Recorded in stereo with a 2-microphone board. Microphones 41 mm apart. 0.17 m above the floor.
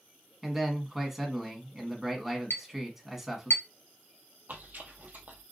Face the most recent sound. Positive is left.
turn(degrees=-50)  # may be behind; listen again after turning